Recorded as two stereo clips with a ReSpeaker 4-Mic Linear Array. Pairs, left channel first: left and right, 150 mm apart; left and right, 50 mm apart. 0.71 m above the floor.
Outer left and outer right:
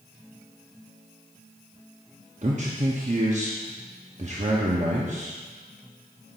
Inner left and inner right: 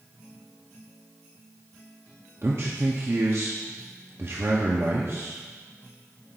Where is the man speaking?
50° right (ahead or behind), 0.8 m.